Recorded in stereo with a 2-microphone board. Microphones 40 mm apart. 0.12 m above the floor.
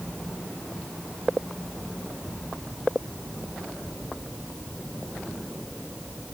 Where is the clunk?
I don't hear a clunk.